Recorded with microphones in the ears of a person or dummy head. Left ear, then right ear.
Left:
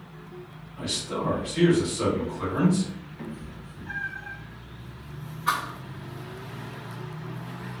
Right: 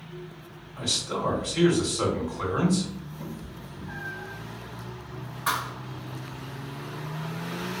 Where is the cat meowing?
45° left (ahead or behind), 1.0 m.